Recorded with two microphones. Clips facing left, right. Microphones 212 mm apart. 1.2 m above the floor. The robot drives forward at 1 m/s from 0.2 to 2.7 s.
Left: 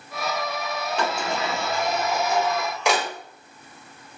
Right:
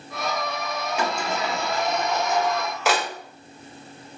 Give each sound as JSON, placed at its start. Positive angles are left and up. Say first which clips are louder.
{"t": 1.0, "sound": "a sliding door", "louder": "even", "side_deg": -10, "distance_m": 1.5}